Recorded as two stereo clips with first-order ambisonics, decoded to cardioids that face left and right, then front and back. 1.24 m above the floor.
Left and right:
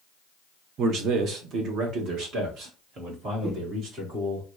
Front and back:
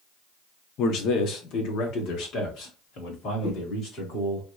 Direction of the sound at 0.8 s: 40° right.